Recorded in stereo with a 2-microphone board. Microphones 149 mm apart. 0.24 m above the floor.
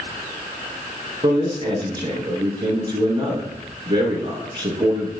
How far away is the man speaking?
About 3 m.